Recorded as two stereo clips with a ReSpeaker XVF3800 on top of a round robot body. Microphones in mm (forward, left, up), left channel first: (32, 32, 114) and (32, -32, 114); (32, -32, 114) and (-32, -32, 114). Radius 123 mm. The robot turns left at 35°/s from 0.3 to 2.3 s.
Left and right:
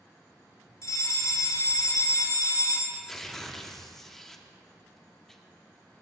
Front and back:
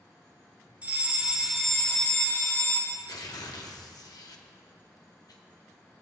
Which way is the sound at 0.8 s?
115° left.